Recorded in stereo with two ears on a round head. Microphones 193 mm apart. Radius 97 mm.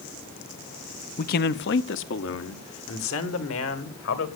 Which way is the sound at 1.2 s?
40° left (ahead or behind).